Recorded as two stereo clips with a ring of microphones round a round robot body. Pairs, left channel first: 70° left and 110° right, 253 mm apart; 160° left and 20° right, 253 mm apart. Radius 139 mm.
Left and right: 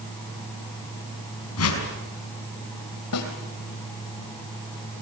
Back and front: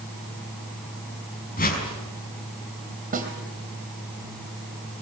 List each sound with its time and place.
1.6 s a whoosh: 100° left, 5 m
3.1 s a snare drum: 40° left, 4 m